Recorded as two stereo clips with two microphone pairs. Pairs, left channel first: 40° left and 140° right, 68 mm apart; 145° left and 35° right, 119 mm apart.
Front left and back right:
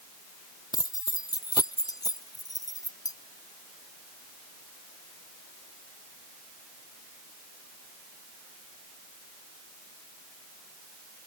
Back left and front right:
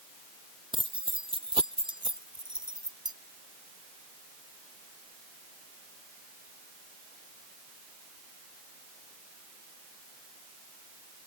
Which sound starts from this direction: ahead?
Keys jangling, at 0.7 s.